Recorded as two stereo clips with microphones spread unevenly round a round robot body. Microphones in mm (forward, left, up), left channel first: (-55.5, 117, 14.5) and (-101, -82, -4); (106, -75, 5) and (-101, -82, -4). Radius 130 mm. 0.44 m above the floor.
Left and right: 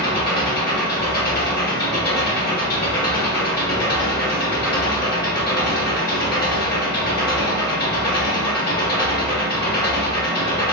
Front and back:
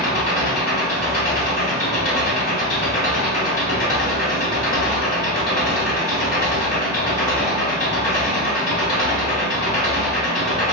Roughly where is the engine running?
Ahead left.